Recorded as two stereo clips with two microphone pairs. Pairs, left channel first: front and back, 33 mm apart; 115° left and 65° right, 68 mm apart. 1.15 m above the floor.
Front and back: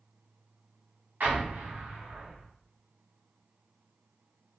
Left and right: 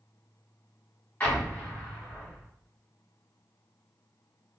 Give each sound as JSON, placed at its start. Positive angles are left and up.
{"t": 1.2, "sound": "an explosion", "azimuth_deg": 180, "distance_m": 1.8}